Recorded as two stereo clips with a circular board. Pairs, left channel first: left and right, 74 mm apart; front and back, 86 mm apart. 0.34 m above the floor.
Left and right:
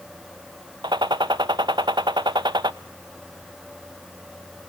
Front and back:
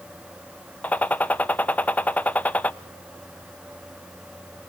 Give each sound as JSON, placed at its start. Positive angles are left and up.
{"t": 0.8, "sound": "a gunshot", "azimuth_deg": -75, "distance_m": 0.7}